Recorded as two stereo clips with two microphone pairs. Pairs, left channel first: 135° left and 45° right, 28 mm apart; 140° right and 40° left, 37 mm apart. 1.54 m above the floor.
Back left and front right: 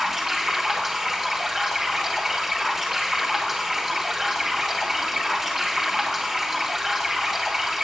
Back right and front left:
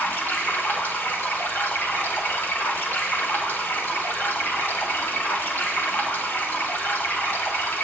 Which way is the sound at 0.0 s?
125° right.